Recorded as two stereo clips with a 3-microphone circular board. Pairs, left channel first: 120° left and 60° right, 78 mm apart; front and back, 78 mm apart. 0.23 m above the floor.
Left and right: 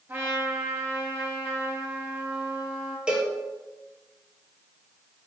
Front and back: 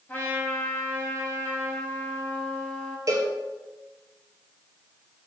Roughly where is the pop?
I don't hear a pop.